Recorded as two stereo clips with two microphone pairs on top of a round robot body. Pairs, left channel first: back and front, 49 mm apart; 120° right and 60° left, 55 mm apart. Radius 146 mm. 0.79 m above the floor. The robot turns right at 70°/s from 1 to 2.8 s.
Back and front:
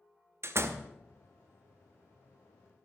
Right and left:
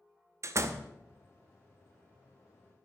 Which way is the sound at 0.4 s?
25° left.